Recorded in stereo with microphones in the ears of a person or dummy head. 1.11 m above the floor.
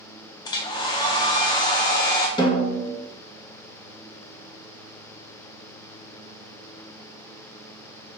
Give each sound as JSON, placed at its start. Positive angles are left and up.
{"t": 0.5, "sound": "a hair dryer", "side_deg": 15, "distance_m": 0.5}
{"t": 2.4, "sound": "a snare drum", "side_deg": 25, "distance_m": 1.0}